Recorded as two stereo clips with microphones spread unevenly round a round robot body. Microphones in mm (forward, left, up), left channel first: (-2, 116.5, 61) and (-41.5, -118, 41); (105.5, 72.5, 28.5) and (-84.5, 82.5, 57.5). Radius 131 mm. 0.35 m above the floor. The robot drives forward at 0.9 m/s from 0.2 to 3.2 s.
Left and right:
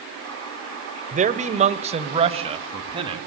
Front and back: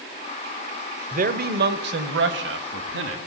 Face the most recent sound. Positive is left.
turn(degrees=-165)